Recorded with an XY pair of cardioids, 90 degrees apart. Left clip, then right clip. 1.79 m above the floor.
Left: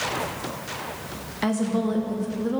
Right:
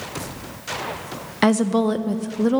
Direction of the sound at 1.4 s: 70° right.